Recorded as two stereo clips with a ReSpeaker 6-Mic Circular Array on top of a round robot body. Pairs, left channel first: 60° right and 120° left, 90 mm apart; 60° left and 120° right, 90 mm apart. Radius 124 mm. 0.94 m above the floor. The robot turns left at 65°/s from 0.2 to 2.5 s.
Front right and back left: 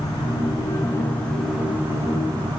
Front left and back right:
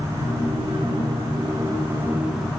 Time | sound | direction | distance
0.0 | an insect | 65° right | 4.5 m